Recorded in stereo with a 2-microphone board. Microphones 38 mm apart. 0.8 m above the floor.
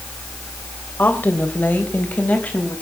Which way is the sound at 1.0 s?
55° left (ahead or behind).